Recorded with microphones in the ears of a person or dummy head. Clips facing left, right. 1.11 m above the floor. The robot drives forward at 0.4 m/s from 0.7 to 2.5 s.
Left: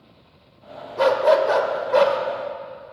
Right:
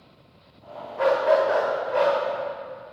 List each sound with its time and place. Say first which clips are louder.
1.0 s a dog barking: left 3 dB; 65° left (ahead or behind), 1.4 m